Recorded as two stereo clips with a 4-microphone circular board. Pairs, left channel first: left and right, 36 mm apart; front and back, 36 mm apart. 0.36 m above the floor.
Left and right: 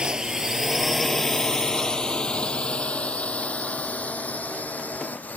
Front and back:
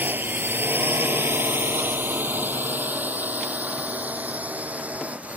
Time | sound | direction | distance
0.0 | a drone | 155° right | ?